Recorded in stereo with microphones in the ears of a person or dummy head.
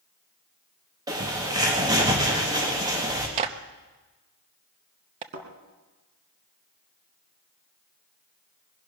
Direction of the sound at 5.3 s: 60° right (ahead or behind).